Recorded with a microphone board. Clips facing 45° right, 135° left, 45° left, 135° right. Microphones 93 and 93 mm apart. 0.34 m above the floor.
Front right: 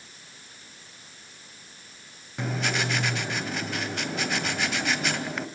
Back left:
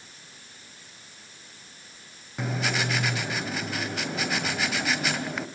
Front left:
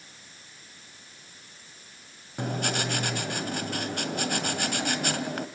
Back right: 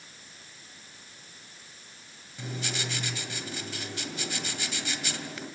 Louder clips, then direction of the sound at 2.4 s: Even, front left 7 dB; 45° left.